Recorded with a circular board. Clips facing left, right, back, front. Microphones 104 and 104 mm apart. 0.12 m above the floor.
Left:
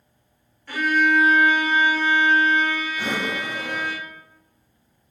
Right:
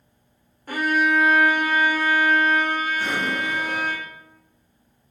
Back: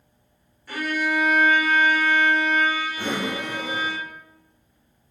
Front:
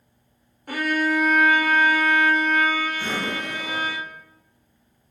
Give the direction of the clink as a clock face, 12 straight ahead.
I don't hear a clink.